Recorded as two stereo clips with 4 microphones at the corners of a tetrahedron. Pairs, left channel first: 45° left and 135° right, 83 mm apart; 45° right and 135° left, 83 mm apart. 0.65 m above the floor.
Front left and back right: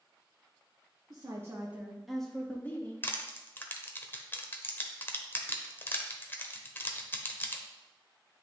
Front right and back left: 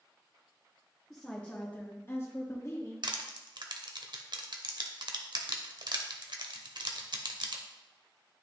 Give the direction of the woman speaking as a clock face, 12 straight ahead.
4 o'clock.